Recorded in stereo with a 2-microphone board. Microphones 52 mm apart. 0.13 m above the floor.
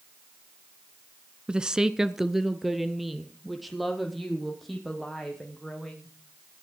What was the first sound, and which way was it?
A woman speaking, 20° right (ahead or behind).